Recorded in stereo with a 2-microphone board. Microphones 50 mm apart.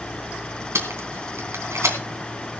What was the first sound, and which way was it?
Tape being pulled, 65° right (ahead or behind).